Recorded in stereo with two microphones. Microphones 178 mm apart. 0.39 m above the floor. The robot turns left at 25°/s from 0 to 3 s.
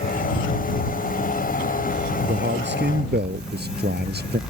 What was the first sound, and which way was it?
A man speaking, 80° right.